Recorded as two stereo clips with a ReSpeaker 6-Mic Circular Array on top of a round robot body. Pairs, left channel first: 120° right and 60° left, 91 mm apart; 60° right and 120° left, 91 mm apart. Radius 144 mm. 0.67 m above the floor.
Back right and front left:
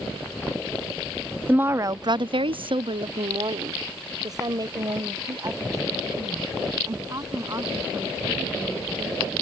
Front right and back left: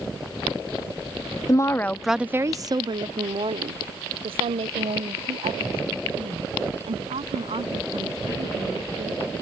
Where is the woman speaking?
10° right; by 9.3 s 120° left.